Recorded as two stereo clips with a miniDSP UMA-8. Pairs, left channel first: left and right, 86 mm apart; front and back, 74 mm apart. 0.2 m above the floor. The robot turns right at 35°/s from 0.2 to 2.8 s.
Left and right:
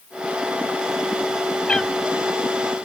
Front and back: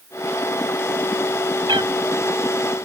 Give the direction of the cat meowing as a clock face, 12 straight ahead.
6 o'clock.